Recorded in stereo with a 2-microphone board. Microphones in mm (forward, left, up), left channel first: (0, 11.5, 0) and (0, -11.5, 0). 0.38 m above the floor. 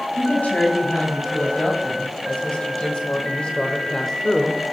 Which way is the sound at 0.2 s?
70° left (ahead or behind).